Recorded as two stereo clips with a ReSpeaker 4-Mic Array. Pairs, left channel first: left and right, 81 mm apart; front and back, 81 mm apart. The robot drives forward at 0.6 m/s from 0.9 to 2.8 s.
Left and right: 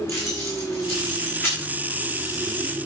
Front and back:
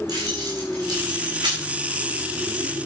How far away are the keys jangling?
About 5.5 m.